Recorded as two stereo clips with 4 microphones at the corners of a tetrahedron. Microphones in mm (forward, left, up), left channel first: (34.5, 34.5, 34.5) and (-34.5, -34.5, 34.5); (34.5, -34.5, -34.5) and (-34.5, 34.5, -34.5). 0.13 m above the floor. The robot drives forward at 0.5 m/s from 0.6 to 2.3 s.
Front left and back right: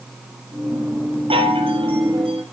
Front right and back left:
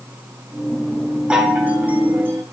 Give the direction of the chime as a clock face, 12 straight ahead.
5 o'clock.